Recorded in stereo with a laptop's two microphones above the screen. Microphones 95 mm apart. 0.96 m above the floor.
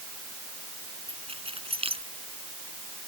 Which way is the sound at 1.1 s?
85° right.